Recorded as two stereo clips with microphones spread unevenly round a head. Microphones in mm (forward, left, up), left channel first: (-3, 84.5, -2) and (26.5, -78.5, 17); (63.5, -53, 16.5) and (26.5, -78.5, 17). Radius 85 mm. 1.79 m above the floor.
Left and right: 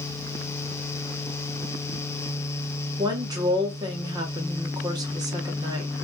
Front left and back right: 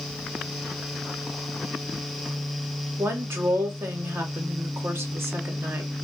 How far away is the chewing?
I don't hear chewing.